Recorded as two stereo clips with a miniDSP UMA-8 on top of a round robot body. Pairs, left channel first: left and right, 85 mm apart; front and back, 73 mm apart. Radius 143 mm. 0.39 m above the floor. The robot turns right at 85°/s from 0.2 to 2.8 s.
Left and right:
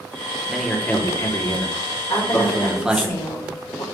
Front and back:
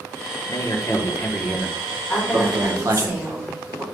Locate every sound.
0.5 s a man speaking: 5° right, 1.4 m; by 3.1 s 170° right, 1.4 m
2.1 s a woman speaking: 60° left, 2 m; by 3.8 s 120° left, 2 m